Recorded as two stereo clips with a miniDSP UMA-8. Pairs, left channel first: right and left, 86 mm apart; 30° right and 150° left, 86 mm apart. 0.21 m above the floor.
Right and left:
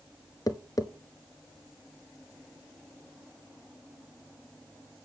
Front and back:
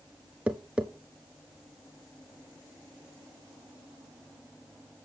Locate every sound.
0.5 s tapping: 135° right, 0.9 m